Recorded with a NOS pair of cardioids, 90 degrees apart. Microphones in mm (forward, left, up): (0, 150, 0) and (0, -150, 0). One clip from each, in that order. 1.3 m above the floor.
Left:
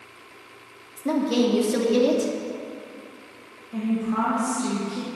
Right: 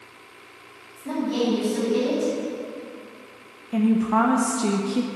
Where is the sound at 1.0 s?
65° left, 2.5 m.